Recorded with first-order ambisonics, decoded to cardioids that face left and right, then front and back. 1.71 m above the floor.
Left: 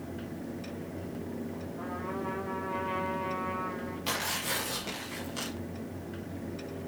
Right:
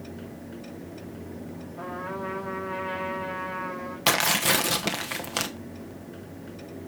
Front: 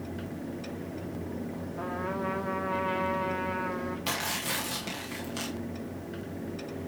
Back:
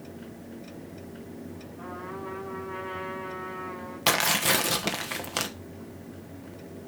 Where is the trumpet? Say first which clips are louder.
Right 4 dB, front 5 dB; 25° right, 2.5 m.